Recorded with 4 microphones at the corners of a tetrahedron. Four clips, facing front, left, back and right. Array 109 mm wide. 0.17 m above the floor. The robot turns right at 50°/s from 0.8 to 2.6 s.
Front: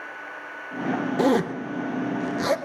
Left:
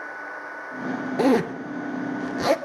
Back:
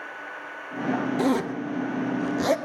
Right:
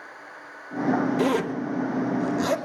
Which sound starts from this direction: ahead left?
A zipper, at 1.2 s.